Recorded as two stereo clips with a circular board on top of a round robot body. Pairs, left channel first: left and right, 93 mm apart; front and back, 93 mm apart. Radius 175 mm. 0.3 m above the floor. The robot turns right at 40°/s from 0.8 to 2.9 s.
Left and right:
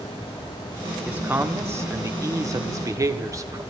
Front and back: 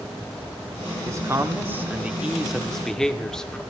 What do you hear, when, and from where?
1.1 s a man speaking: 155° right, 1.6 m; by 3.6 s 80° right, 1.6 m